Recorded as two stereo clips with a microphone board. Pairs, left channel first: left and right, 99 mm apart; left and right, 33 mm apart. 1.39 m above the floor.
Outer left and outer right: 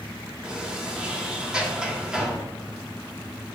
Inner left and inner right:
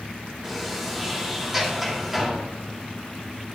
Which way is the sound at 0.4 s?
10° right (ahead or behind).